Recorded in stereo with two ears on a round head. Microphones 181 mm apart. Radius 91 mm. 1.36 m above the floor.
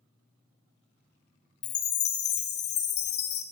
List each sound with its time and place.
1.6 s a chime: 55° left (ahead or behind), 0.7 m